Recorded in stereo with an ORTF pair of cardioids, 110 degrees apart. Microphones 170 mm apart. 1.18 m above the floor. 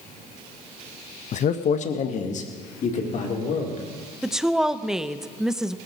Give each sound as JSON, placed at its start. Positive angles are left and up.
{"t": 1.3, "sound": "a man speaking", "azimuth_deg": 45, "distance_m": 0.7}
{"t": 4.2, "sound": "a woman speaking", "azimuth_deg": 0, "distance_m": 0.6}